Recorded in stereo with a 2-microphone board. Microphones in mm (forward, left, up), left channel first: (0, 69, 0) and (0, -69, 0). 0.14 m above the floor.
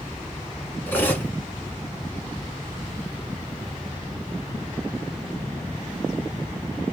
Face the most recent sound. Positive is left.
turn(degrees=15)  # may be behind; listen again after turning